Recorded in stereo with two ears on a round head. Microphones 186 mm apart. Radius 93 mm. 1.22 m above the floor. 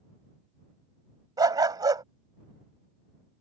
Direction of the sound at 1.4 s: 20° right (ahead or behind).